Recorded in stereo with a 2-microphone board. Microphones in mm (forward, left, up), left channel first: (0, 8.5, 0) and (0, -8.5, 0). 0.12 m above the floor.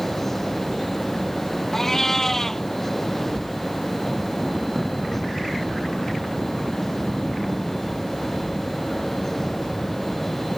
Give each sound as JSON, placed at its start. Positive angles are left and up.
{"t": 1.7, "sound": "a cat meowing", "side_deg": 25}